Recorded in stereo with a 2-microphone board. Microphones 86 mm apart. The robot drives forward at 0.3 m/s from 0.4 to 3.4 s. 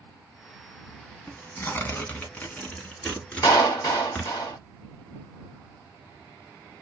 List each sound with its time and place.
1.3 s tearing paper: 30° left (ahead or behind), 0.6 m; by 4.3 s 15° left (ahead or behind), 1.2 m
3.4 s a clap: 40° left (ahead or behind), 2 m